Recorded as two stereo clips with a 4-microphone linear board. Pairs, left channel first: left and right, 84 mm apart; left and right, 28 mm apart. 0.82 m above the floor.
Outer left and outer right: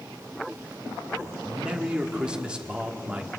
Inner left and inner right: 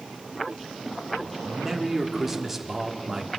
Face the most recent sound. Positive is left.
turn(degrees=-10)  # may be behind; listen again after turning